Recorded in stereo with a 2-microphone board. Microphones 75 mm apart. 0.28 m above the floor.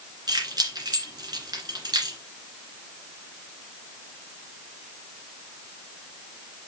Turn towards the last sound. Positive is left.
turn(degrees=-55)  # may be behind; listen again after turning